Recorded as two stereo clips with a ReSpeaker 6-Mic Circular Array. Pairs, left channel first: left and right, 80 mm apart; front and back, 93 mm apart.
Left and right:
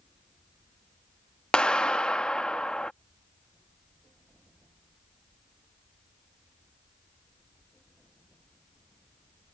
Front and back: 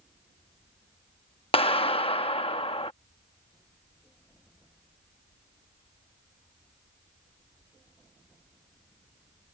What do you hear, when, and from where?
1.5 s a clap: 10° left